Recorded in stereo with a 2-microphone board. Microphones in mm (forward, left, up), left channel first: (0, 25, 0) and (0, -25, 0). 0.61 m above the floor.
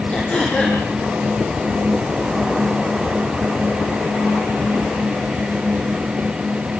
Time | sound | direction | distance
0.1 | throat clearing | 20° left (ahead or behind) | 7 m